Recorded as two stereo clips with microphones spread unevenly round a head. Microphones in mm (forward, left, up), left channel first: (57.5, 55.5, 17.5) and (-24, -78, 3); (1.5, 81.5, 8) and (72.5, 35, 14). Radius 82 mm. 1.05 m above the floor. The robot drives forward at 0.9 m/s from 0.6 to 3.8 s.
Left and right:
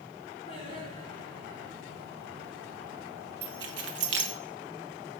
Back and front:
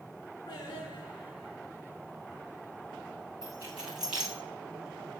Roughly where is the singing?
Behind left.